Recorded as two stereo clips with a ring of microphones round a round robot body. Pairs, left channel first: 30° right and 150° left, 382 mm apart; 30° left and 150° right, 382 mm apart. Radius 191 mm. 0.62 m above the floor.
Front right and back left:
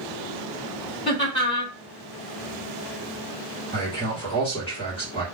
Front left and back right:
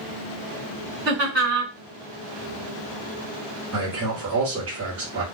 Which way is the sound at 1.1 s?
100° right.